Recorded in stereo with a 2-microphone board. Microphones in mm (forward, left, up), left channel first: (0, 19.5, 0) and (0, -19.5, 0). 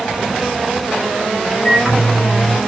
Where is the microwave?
15° right (ahead or behind), 3 m.